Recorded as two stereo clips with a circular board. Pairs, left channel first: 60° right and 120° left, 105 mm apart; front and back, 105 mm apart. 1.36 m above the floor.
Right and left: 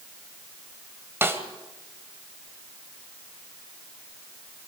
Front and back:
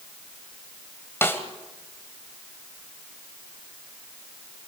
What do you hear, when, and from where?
1.2 s a snare drum: 60° left, 1.5 m